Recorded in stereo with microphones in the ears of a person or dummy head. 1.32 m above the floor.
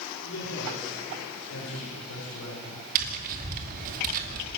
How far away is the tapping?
About 2.5 m.